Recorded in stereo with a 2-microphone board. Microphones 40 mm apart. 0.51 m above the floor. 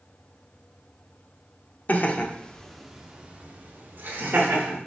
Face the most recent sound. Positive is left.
turn(degrees=-55)  # may be behind; listen again after turning